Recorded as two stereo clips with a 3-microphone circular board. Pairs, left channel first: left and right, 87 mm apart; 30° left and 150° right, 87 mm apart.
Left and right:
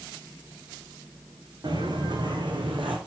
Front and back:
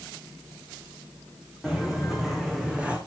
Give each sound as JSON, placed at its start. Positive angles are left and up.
{"t": 1.6, "sound": "footsteps", "azimuth_deg": -55, "distance_m": 2.5}